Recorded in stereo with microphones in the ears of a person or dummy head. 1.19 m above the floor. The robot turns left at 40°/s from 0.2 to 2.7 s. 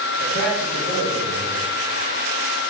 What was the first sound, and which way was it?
A man speaking, 65° left (ahead or behind).